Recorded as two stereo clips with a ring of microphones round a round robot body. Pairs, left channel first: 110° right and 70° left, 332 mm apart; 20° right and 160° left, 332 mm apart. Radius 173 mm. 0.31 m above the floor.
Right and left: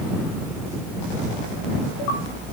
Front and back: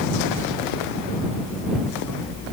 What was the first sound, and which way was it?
Only background noise.